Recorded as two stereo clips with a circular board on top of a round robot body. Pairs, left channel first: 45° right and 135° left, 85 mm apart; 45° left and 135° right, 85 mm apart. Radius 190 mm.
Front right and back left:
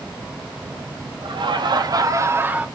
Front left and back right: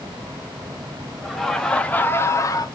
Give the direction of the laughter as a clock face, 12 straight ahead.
8 o'clock.